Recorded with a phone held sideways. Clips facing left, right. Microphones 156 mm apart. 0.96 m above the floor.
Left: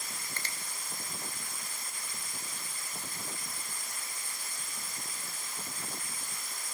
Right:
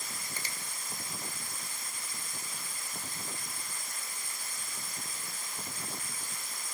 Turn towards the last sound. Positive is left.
turn(degrees=-10)  # may be behind; listen again after turning